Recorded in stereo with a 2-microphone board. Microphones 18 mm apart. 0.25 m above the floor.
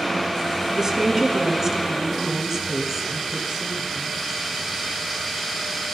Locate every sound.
0.8 s a woman speaking: 20° right (ahead or behind), 2.5 m; by 4.2 s 10° right (ahead or behind), 4 m